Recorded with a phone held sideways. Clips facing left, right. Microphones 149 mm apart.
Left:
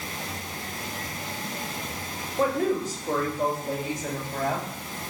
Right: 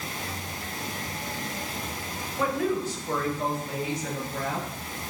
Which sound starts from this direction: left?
A woman speaking, at 2.4 s.